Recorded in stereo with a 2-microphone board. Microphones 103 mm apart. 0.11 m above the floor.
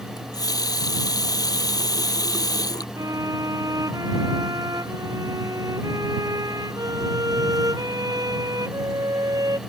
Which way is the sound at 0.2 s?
40° left (ahead or behind).